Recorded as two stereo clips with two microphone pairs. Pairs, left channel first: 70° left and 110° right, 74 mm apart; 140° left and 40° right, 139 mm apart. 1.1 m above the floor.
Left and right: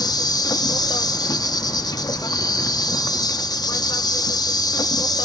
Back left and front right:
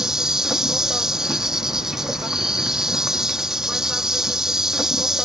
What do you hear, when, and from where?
0.0 s an insect: 45° left